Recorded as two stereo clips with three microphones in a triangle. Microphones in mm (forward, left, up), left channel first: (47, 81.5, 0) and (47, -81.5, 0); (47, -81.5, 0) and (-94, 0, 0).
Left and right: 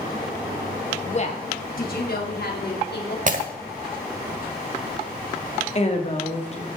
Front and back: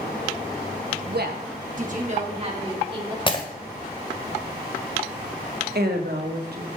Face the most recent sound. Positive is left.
turn(degrees=140)